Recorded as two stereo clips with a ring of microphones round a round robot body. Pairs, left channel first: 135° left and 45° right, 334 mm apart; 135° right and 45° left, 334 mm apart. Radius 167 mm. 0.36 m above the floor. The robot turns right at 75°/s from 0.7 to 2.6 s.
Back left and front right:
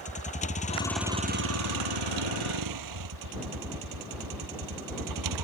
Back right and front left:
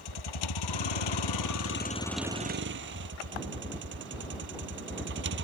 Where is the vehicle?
155° right; by 5.4 s 15° right.